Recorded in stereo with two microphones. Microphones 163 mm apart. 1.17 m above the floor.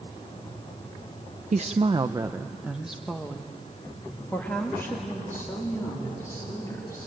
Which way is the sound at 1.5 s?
50° right (ahead or behind).